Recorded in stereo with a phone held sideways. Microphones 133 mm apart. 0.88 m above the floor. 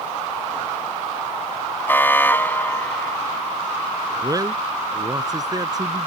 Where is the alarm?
15° left (ahead or behind).